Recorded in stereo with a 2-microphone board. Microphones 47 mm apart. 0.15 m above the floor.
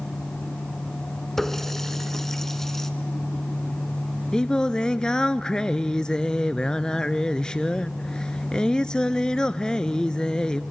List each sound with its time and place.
1.4 s a running tap: 10° left (ahead or behind), 0.9 m
4.3 s singing: 15° left (ahead or behind), 0.6 m